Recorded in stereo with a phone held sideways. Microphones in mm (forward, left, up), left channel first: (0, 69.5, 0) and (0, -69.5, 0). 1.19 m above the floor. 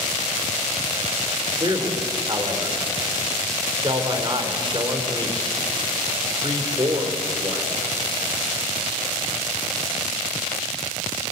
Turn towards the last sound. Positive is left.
turn(degrees=-35)  # may be behind; listen again after turning